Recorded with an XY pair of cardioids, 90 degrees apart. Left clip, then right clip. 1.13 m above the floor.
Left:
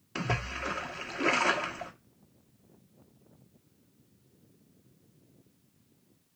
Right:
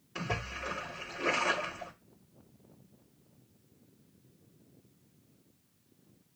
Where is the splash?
65° left, 1.7 m.